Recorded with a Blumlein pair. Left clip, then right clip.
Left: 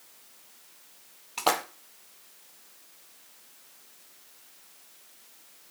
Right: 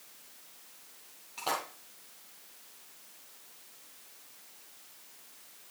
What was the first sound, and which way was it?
A splash, 30° left.